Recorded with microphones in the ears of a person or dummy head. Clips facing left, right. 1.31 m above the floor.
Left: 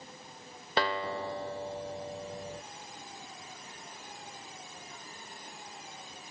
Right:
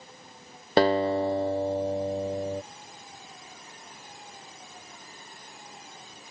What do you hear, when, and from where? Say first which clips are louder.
0.8 s a guitar: right 11 dB; 40° right (ahead or behind)